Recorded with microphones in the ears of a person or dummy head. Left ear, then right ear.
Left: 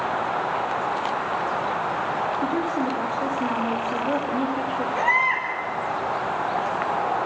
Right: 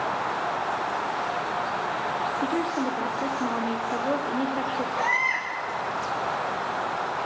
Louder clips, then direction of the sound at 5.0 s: Left 4 dB; 10° left (ahead or behind).